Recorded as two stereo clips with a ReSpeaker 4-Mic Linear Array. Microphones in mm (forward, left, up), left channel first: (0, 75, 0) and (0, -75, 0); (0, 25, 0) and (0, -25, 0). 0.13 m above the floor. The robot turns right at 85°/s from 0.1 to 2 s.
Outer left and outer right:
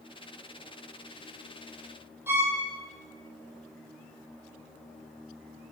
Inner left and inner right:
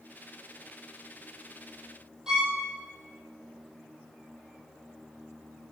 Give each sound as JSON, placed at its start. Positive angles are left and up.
{"t": 2.3, "sound": "a violin", "side_deg": -15, "distance_m": 1.2}